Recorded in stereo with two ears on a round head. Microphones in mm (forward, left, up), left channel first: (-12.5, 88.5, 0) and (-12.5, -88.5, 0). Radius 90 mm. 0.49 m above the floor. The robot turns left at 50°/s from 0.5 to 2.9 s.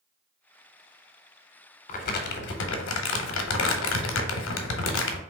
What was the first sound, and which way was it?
Crumpling, 140° left.